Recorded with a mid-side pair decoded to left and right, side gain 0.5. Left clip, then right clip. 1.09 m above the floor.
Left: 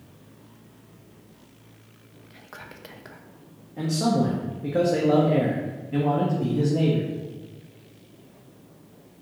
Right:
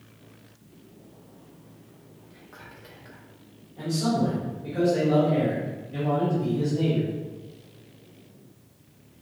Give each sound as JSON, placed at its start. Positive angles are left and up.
{"t": 2.3, "sound": "whispering", "azimuth_deg": 50, "distance_m": 0.8}
{"t": 3.8, "sound": "a man speaking", "azimuth_deg": 60, "distance_m": 1.2}